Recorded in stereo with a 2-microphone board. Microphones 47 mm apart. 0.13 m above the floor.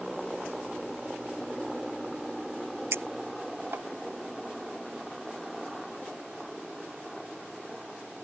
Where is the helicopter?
5° right (ahead or behind); by 8.2 s centre (ahead or behind).